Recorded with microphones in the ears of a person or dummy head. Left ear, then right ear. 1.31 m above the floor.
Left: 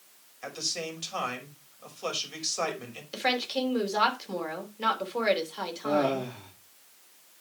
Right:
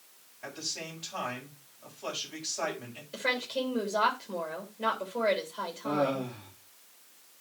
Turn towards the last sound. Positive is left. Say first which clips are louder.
# left 3 dB
turn(degrees=70)  # may be behind; listen again after turning